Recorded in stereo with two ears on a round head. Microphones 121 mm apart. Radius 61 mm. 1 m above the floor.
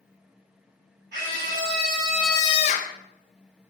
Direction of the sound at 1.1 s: 65° right (ahead or behind).